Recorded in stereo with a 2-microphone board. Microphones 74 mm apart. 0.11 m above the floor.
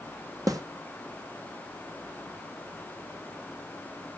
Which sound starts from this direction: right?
A snare drum, at 0.5 s.